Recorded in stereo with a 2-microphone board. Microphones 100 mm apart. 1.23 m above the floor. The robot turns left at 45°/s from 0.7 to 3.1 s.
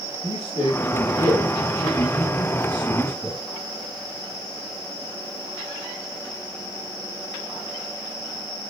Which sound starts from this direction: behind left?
A man speaking, at 0.2 s.